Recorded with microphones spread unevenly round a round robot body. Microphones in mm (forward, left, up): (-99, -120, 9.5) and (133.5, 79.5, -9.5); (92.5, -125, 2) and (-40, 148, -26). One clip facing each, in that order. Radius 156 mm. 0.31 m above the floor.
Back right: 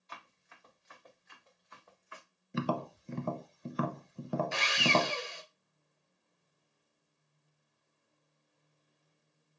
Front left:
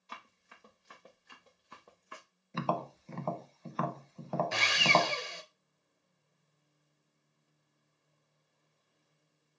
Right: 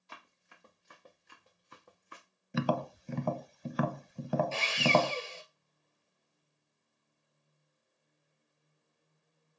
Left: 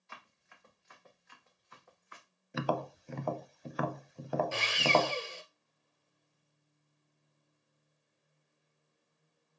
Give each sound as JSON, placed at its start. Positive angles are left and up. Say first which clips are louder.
{"t": 0.1, "sound": "running footsteps", "louder": "front left 1 dB, right 1 dB", "azimuth_deg": -15, "distance_m": 3.0}
{"t": 2.5, "sound": "tapping", "louder": "back right 2 dB, right 3 dB", "azimuth_deg": -65, "distance_m": 0.6}
{"t": 4.5, "sound": "sawing", "louder": "back right 1 dB, right 1 dB", "azimuth_deg": 40, "distance_m": 1.1}